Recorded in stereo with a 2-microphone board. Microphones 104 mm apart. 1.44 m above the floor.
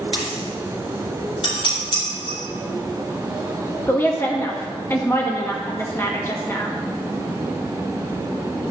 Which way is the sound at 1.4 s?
65° left (ahead or behind).